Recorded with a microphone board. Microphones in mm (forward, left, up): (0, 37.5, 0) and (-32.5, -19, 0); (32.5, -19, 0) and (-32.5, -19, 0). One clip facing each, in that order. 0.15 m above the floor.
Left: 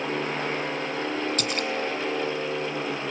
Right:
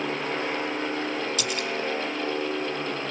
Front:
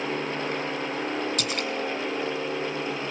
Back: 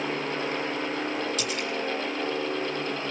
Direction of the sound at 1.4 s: 25° left.